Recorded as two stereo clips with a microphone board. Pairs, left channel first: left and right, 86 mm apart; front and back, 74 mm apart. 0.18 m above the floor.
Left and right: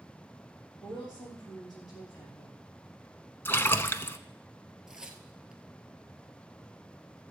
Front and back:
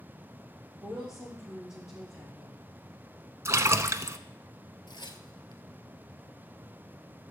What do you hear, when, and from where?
0.8 s a woman speaking: 45° left, 4 m
3.5 s a splash: 145° left, 0.7 m
4.9 s tearing paper: 5° right, 1.2 m